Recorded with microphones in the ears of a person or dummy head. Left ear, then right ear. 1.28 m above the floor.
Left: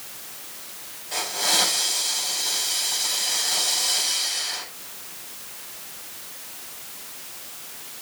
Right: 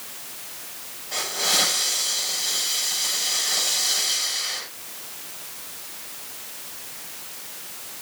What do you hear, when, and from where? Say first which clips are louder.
1.1 s a hiss: even; 10° left (ahead or behind), 6.5 m